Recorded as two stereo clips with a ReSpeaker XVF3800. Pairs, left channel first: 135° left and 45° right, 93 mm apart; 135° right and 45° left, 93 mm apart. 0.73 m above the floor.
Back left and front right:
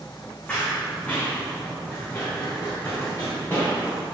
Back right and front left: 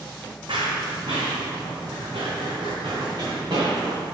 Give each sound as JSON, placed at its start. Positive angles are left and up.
{"t": 0.5, "sound": "running footsteps", "azimuth_deg": 60, "distance_m": 2.0}